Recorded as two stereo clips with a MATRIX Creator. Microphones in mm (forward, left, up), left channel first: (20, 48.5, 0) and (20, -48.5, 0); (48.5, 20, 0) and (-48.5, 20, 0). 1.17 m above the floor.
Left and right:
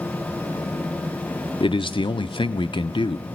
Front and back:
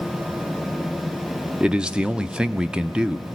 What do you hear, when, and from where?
1.6 s a man speaking: 100° left, 0.7 m